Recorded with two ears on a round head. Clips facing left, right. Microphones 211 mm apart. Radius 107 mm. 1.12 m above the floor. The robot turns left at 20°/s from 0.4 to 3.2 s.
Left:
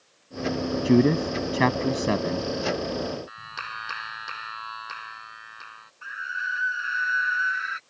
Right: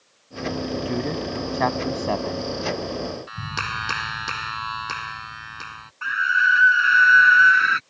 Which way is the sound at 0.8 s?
50° left.